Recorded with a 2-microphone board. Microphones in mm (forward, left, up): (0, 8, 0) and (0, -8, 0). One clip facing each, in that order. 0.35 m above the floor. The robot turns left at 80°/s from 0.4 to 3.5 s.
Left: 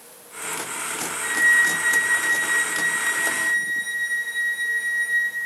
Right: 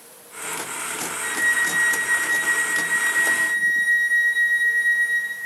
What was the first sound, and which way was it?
A flute, 115° right.